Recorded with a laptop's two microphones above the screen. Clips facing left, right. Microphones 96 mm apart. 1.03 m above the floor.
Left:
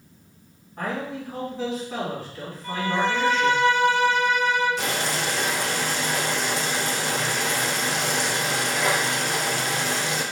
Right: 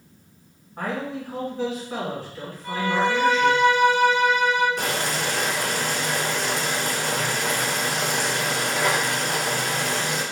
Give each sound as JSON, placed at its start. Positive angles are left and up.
{"t": 0.8, "sound": "a man speaking", "side_deg": -45, "distance_m": 1.8}
{"t": 2.6, "sound": "a violin", "side_deg": -10, "distance_m": 0.9}
{"t": 4.8, "sound": "boiling", "side_deg": -50, "distance_m": 0.7}